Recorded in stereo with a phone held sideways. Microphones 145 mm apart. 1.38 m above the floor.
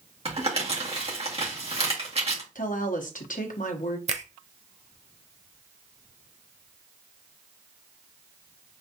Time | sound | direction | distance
0.2 | crumpling | 45° right (ahead or behind) | 2 m
2.5 | a woman speaking | 65° left (ahead or behind) | 1.0 m
4.1 | a finger snap | 50° right (ahead or behind) | 0.6 m